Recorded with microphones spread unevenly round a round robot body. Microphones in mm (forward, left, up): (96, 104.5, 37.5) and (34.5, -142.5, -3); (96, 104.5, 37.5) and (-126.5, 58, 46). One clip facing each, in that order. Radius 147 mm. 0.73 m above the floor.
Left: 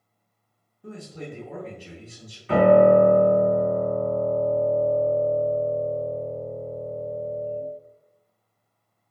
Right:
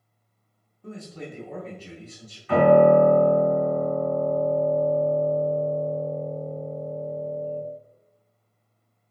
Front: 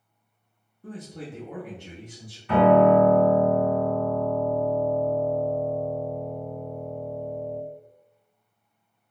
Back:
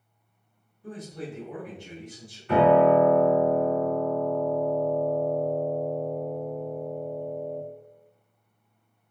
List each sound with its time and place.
0.8 s a man speaking: 5° right, 1.0 m
2.5 s a piano: 20° left, 1.4 m